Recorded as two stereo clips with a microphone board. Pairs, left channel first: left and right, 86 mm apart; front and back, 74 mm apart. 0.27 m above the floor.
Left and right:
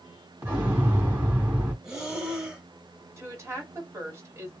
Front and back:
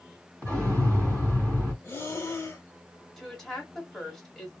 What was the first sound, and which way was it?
An explosion, 140° right.